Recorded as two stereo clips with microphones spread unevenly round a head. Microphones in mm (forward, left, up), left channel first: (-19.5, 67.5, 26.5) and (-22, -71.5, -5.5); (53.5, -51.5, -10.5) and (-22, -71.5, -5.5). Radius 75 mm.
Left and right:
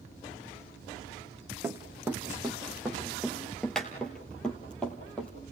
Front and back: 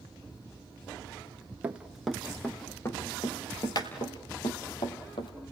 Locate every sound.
1.6 s running footsteps: 170° right, 1.2 m; by 5.3 s 15° left, 3 m